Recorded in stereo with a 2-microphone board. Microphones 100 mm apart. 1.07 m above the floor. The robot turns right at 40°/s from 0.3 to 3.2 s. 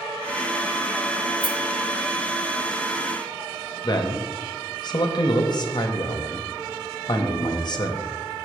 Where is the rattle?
5° left (ahead or behind), 0.7 m; by 1.6 s centre (ahead or behind), 0.7 m.